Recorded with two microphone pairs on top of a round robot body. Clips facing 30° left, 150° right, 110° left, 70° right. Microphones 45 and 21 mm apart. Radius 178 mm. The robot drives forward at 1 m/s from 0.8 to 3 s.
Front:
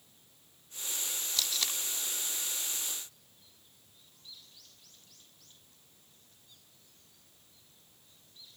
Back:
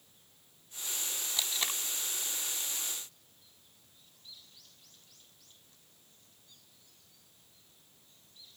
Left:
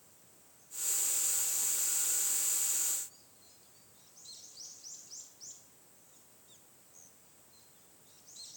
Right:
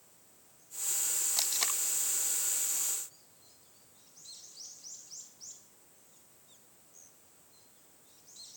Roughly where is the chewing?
No chewing in this recording.